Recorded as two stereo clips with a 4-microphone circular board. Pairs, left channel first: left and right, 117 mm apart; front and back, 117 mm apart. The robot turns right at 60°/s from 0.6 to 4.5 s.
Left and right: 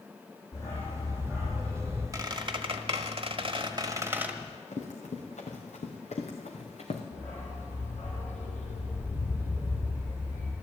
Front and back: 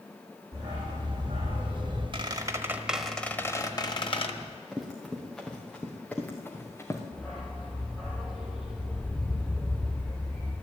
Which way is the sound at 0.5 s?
155° left.